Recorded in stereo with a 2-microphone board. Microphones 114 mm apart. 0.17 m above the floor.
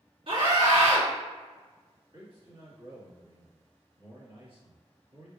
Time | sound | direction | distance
0.3 | a scream | 50° right (ahead or behind) | 2.0 m
2.1 | a man speaking | 50° right (ahead or behind) | 2.0 m